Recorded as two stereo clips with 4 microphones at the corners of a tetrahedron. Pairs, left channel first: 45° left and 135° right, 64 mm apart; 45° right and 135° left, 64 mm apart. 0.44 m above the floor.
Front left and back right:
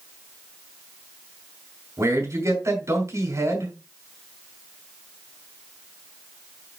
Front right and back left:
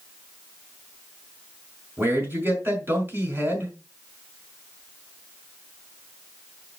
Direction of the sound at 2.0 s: 170° right.